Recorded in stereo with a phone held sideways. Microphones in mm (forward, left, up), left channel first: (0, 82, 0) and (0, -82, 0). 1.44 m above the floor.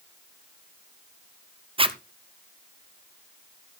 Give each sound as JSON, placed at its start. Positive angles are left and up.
{"t": 1.8, "sound": "a zipper", "side_deg": -35, "distance_m": 0.6}